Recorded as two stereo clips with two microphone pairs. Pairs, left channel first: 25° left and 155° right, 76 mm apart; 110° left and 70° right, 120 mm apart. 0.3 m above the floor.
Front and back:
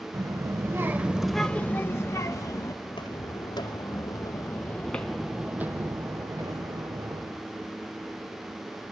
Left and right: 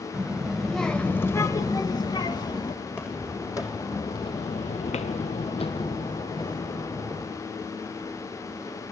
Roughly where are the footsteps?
Ahead left.